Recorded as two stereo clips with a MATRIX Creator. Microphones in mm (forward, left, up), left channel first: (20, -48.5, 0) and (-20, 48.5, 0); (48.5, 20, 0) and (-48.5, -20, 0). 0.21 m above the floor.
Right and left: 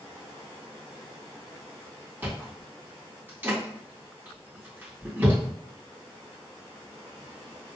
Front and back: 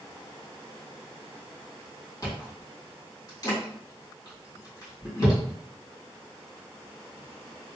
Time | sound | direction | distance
2.2 | chewing | 50° left | 1.8 m